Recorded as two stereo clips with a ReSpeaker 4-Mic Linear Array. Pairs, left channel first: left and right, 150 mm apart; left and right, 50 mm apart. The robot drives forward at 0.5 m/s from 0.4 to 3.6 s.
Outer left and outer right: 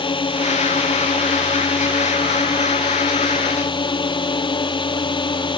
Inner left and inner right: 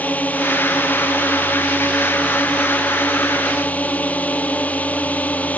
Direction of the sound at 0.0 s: 35° left (ahead or behind).